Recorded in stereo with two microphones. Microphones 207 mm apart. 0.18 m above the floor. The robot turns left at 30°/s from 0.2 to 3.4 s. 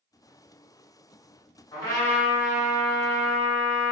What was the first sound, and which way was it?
A trumpet, 25° left (ahead or behind).